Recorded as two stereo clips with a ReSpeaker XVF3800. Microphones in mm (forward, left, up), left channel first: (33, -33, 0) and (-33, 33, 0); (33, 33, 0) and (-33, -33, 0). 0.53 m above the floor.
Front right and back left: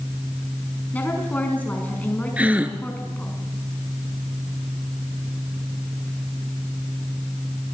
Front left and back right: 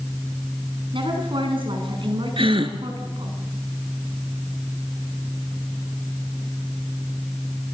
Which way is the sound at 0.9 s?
115° right.